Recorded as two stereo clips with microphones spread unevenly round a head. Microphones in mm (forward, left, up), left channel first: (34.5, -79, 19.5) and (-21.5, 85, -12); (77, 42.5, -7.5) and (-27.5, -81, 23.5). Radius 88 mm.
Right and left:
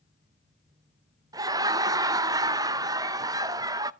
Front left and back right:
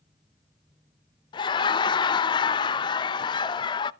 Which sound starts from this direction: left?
Laughter, at 1.3 s.